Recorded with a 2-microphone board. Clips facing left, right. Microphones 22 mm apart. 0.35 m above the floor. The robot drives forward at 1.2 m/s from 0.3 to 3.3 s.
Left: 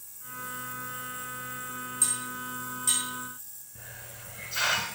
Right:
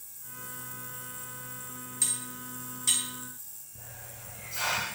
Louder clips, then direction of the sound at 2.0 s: Left 1 dB; 30° right (ahead or behind).